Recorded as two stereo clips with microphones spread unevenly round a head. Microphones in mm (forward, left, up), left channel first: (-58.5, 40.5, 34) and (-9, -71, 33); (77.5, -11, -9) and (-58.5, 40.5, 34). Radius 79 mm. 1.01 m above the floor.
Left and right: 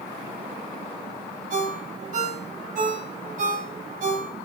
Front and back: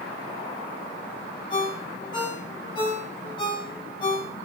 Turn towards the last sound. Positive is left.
turn(degrees=-85)